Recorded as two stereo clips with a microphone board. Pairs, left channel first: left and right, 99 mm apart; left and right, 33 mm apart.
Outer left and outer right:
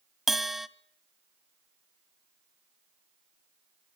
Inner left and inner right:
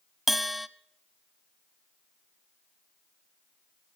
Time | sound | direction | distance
0.3 | a bell | centre (ahead or behind) | 1.0 m